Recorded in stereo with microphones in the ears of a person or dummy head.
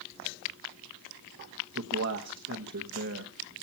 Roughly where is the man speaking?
Right.